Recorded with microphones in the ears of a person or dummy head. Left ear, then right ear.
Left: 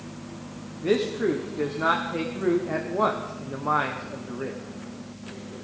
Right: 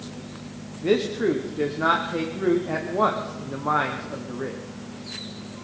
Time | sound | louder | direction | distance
0.8 | a man speaking | right 2 dB | 5° right (ahead or behind) | 1.0 m